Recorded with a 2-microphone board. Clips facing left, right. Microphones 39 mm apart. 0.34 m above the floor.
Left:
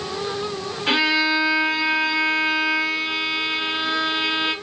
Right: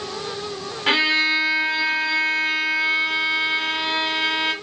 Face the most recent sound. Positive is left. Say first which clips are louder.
# right 1 dB
turn(degrees=-45)  # may be behind; listen again after turning